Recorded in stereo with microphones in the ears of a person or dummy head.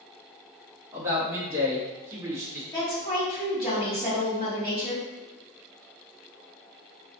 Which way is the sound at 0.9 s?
15° right (ahead or behind).